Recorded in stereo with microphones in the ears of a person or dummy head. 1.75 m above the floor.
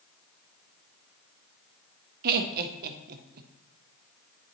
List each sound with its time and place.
2.2 s laughter: 55° right (ahead or behind), 0.6 m